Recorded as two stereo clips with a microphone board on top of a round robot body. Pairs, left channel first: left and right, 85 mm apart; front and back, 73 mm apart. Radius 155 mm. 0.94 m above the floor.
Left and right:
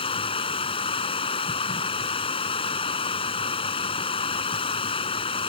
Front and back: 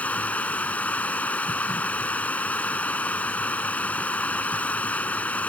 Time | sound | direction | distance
0.0 | running water | 75° left | ?